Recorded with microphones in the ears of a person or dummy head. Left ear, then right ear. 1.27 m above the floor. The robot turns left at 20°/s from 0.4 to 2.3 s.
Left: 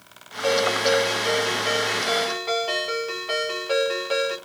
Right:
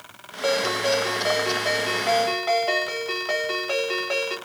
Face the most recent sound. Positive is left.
turn(degrees=-160)